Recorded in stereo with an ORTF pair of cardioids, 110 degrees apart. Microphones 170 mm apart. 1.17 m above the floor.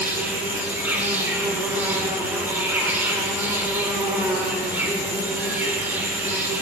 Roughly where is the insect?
Ahead.